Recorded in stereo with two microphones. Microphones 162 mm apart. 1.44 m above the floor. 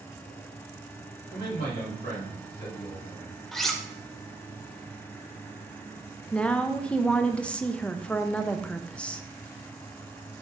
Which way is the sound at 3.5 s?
Centre (ahead or behind).